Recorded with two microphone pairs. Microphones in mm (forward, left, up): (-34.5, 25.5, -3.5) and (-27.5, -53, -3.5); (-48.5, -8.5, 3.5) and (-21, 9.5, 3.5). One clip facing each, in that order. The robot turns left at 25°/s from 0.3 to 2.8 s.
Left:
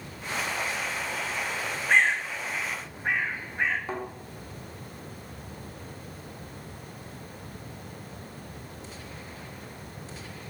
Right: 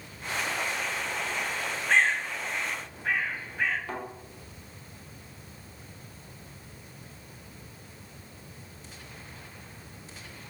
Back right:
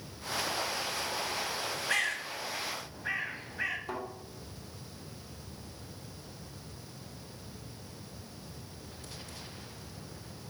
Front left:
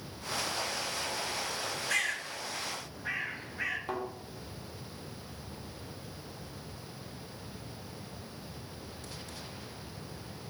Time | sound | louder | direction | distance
1.9 | a bird | left 1 dB, back right 1 dB | 165° left | 0.9 m
3.9 | a thud | left 3 dB, front left 2 dB | 60° left | 1.0 m